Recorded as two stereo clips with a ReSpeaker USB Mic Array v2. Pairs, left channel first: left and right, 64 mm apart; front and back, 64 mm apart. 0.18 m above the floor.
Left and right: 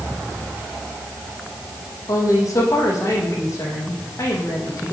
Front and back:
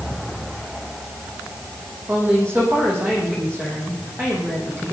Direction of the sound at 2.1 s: 125° left.